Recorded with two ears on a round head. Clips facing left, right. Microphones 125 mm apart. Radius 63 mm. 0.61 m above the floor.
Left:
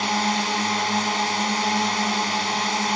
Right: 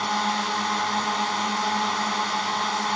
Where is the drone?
20° left (ahead or behind).